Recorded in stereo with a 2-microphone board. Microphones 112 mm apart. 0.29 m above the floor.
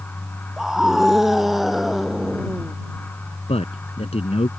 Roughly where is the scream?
Centre.